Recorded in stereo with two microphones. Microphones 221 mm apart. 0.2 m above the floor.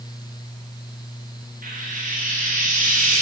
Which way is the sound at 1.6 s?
40° right (ahead or behind).